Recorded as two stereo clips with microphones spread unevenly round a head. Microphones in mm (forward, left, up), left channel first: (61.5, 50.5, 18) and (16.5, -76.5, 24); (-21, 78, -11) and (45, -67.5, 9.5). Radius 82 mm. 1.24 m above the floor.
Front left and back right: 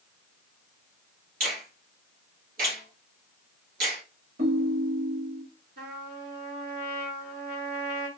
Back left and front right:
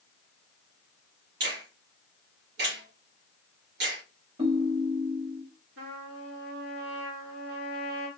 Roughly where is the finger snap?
Right.